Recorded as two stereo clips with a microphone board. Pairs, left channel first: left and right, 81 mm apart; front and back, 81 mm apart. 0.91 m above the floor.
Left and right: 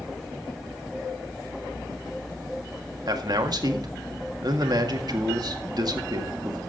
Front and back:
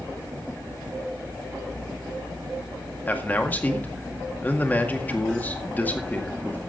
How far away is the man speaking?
About 1.7 m.